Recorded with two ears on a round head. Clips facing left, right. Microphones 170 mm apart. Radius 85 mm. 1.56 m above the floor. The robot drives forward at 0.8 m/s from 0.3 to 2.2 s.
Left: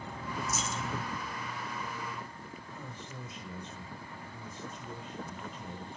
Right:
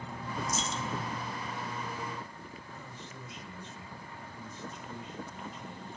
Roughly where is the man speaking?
Left.